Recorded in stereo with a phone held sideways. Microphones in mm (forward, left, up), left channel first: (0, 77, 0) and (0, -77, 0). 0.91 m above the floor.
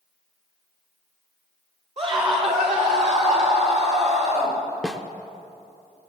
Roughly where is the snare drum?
Centre.